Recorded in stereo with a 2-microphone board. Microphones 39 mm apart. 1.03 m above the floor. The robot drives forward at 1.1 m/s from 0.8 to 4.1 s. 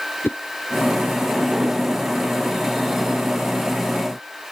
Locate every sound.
0.2 s a whoosh: 90° left